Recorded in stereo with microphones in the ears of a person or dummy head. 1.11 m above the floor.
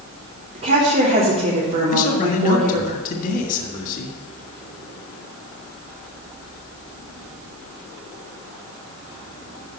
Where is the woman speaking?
45° right (ahead or behind), 3 m.